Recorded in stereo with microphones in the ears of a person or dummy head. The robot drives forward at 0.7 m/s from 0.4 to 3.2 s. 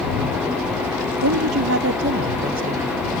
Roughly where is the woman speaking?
Right.